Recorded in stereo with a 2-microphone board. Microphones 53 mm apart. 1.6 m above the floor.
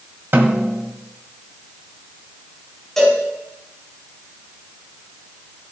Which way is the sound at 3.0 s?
5° left (ahead or behind).